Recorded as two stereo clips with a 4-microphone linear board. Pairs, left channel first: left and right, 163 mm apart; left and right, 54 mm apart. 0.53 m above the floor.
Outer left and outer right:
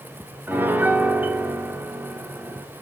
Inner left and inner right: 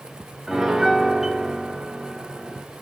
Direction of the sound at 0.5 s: 10° right (ahead or behind).